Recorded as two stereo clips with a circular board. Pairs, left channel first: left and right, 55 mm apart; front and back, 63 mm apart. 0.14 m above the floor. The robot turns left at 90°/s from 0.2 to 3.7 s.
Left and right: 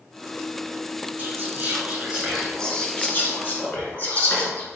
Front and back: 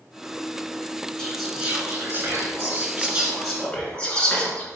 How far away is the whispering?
About 1.5 m.